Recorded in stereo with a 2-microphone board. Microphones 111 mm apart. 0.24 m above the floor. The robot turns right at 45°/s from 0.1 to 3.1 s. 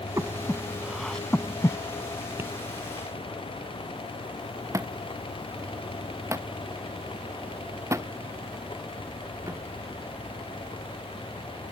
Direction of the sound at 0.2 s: 30° right (ahead or behind).